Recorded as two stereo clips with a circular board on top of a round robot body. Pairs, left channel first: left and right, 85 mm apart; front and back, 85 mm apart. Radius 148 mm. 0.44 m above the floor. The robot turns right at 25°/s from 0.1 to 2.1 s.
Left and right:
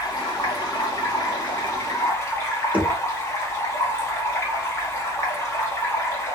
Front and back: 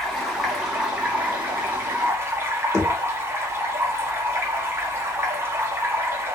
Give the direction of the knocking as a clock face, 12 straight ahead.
1 o'clock.